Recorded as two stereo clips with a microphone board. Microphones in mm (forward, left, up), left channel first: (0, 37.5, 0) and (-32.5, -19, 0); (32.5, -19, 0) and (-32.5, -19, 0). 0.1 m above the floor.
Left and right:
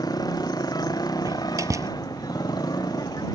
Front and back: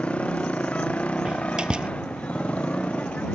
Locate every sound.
0.0 s a motorcycle: 70° left
1.2 s a door slam: 105° right